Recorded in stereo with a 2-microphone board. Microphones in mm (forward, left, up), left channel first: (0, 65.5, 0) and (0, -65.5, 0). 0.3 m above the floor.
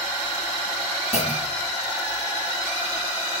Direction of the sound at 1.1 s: 55° left (ahead or behind).